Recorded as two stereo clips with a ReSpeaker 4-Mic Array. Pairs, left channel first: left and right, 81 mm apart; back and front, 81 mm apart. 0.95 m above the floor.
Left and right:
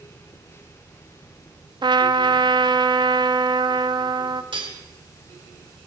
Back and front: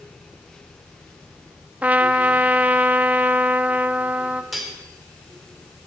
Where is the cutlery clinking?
90° right, 2 m.